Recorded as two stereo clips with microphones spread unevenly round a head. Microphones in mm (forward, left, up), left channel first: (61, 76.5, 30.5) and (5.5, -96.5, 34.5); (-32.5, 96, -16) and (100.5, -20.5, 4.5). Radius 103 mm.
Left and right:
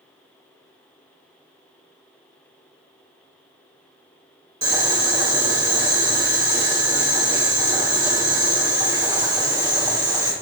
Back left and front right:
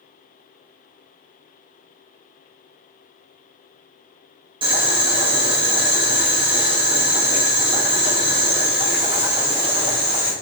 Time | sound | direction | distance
4.6 | boiling | 40° right | 0.9 m